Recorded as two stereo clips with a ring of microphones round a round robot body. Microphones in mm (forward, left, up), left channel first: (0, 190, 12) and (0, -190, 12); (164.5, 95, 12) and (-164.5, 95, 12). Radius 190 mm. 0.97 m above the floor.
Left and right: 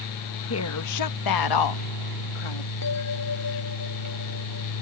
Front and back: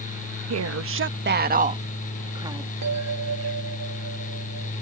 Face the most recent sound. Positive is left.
turn(degrees=140)